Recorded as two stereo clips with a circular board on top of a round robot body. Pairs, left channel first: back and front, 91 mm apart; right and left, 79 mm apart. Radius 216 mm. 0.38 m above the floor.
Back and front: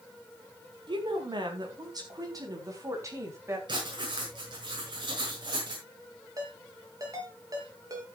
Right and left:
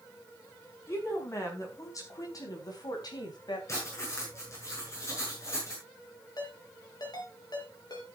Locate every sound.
0.9 s a woman speaking: 35° right, 4.5 m; by 3.6 s 60° right, 4 m
3.7 s writing: 35° right, 6.5 m
6.4 s a ringtone: 50° right, 4 m